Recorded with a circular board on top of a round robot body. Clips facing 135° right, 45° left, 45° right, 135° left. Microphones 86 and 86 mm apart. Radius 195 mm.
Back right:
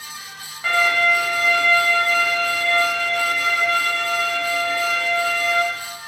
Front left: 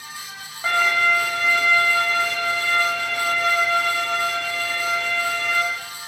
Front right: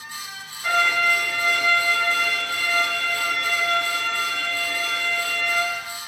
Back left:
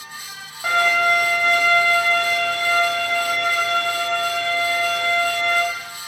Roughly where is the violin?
Left.